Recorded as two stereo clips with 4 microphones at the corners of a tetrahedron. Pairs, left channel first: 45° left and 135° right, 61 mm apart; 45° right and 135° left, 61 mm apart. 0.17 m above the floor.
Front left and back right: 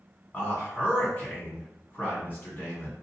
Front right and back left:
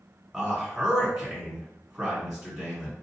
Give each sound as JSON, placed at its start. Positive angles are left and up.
{"t": 0.3, "sound": "a man speaking", "azimuth_deg": 65, "distance_m": 1.7}